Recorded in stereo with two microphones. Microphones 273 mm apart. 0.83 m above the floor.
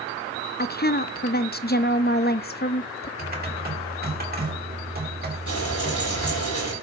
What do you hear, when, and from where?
0.6 s a woman speaking: 35° left (ahead or behind), 0.5 m
3.2 s typing on a keyboard: 35° right (ahead or behind), 2.5 m
5.5 s frying: 85° left, 9.5 m